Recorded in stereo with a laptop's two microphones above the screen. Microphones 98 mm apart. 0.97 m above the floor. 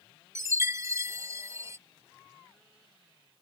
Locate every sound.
0.3 s a chime: 30° right (ahead or behind)